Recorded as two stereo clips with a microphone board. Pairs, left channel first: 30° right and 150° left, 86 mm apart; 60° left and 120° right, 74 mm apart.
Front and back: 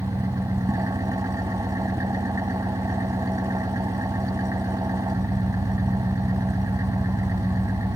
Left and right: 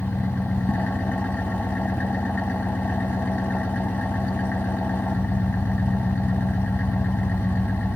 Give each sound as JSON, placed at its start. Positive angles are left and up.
{"t": 0.0, "sound": "an engine running", "azimuth_deg": 120, "distance_m": 1.6}